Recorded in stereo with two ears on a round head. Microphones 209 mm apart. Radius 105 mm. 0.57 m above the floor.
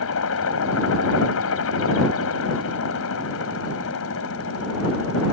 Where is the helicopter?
65° left (ahead or behind).